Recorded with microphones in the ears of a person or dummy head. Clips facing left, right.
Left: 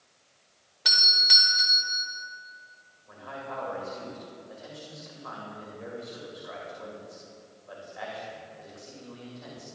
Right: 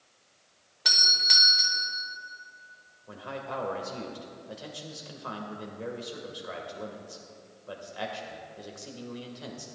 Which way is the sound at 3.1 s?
50° right (ahead or behind).